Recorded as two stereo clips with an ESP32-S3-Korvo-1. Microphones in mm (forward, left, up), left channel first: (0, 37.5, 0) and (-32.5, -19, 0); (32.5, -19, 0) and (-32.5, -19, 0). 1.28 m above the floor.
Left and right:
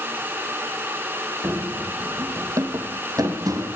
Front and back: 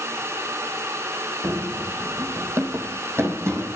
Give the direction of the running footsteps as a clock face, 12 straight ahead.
5 o'clock.